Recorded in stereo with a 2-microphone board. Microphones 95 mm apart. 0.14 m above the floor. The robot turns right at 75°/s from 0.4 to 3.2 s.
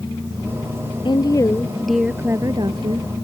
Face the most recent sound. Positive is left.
turn(degrees=-85)